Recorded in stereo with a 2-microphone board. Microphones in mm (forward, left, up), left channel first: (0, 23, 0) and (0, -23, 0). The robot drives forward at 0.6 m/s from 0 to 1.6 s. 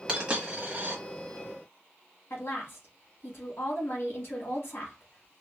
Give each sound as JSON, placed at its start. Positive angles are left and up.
{"t": 0.1, "sound": "a dropped coin", "side_deg": -25, "distance_m": 1.4}
{"t": 2.3, "sound": "a woman speaking", "side_deg": 60, "distance_m": 1.9}